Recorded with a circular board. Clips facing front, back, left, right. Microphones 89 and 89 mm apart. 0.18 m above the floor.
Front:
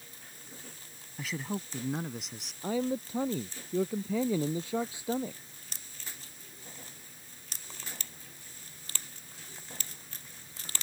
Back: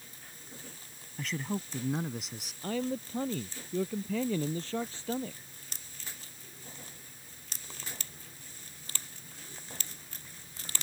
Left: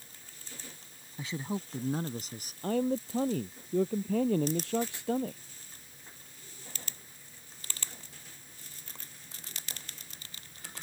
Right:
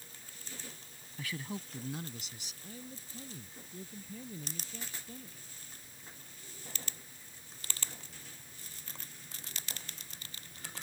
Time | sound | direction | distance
1.2 | a man speaking | 80° left | ?
2.6 | a man speaking | 75° left | ?